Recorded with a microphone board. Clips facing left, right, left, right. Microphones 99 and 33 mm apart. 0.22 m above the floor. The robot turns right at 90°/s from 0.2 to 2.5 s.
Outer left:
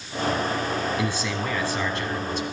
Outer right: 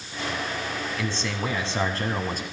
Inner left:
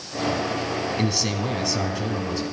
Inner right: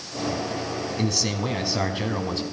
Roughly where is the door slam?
I don't hear a door slam.